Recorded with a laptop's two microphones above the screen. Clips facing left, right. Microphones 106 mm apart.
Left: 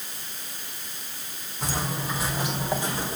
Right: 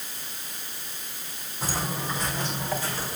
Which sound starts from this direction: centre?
Footsteps, at 1.6 s.